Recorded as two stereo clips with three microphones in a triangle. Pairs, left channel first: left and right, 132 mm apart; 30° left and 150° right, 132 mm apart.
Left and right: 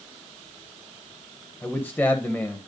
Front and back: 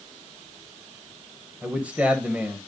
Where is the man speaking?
145° left, 1.2 m.